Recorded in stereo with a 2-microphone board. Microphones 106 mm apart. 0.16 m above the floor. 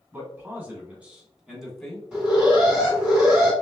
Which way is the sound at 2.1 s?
5° right (ahead or behind).